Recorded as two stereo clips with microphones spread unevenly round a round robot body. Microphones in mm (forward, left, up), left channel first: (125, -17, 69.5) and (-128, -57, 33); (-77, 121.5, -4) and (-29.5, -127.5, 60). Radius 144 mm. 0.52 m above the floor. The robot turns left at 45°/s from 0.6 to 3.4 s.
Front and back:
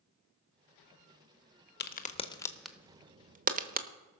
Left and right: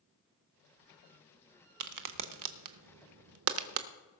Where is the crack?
45° right, 0.9 m; by 3.9 s 115° right, 0.9 m.